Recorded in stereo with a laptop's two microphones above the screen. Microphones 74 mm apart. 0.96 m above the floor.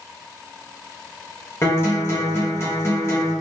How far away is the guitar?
About 0.8 m.